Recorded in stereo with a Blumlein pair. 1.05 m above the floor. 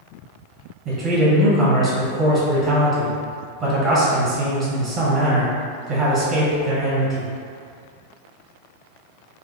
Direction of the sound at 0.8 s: 35° right.